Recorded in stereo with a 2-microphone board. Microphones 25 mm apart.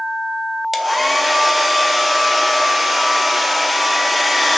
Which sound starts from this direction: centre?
A hair dryer, at 0.7 s.